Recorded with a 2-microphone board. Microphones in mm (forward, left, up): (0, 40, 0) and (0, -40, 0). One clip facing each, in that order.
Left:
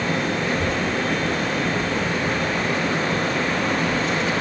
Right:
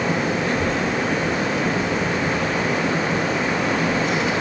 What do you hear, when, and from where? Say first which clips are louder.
0.5 s a child speaking: right 1 dB; 15° left (ahead or behind), 3 m; by 4.3 s 5° right (ahead or behind), 6 m